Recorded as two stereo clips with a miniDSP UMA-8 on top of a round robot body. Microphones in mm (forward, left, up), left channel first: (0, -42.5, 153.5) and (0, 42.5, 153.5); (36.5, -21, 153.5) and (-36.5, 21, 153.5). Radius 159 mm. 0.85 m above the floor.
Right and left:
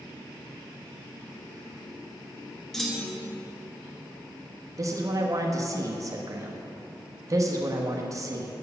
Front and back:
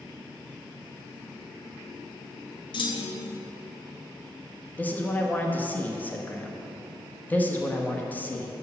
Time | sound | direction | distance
2.7 | a clunk | 5° right | 0.8 m
4.8 | a man speaking | 40° left | 1.1 m